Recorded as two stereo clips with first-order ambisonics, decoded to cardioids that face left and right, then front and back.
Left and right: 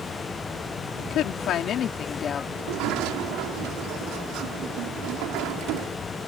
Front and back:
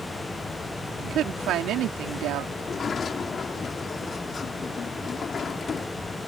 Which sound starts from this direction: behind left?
A woman speaking, at 1.0 s.